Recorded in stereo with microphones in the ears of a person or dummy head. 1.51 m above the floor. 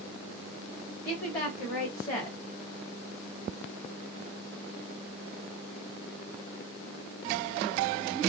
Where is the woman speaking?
35° left (ahead or behind), 1.4 m.